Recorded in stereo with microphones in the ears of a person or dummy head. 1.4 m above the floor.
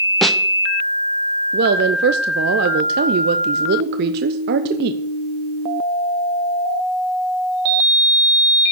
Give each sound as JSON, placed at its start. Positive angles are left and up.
{"t": 0.2, "sound": "a snare drum", "side_deg": -5, "distance_m": 0.5}
{"t": 1.5, "sound": "a woman speaking", "side_deg": -50, "distance_m": 0.6}